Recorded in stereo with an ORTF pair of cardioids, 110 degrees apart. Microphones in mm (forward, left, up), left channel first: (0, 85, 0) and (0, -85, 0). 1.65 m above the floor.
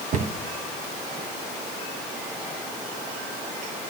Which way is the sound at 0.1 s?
45° right.